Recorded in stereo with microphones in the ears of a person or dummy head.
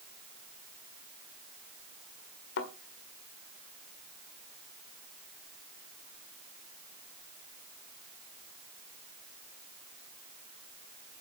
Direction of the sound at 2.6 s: 65° left (ahead or behind).